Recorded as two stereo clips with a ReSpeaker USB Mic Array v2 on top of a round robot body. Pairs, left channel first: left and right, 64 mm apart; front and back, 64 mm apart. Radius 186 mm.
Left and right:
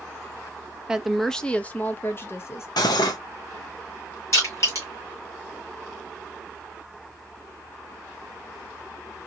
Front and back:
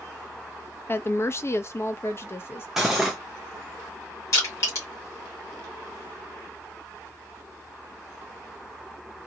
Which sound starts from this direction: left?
Cutlery clinking, at 2.8 s.